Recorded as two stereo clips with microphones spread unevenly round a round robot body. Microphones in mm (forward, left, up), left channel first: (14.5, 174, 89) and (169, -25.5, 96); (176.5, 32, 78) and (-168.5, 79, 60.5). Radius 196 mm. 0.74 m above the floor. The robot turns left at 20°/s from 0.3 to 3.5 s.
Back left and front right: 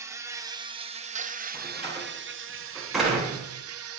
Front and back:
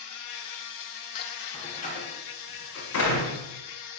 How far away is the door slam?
About 9 m.